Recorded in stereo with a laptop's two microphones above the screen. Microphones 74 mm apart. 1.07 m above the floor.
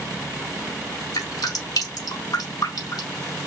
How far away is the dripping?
About 3 m.